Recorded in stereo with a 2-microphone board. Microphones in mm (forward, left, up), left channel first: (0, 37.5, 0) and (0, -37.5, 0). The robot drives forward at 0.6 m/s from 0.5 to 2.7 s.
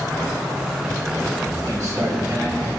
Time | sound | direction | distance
1.6 | a man speaking | 45° right (ahead or behind) | 5 m